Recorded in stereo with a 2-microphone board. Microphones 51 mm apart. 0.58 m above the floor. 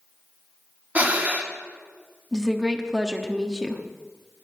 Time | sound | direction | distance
0.9 | breathing | 30° right (ahead or behind) | 1.2 m
2.3 | a woman speaking | 10° right (ahead or behind) | 1.1 m